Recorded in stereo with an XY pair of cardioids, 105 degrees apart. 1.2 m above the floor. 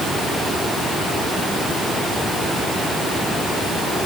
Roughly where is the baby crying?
No baby crying in this recording.